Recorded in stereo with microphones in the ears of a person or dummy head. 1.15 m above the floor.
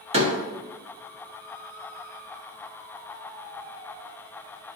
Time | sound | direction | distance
0.1 | a door slam | 35° right (ahead or behind) | 1.4 m